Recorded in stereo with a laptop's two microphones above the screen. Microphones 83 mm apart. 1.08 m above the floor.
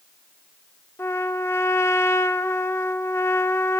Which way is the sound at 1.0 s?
30° left (ahead or behind).